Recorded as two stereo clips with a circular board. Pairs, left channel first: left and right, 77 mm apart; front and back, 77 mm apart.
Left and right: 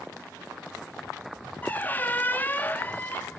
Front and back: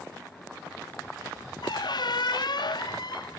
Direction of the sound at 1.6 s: 25° left.